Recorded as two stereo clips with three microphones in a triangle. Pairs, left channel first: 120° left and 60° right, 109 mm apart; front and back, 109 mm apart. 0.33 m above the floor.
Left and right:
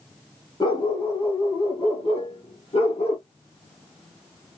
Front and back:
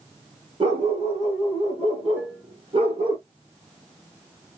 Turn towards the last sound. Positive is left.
turn(degrees=110)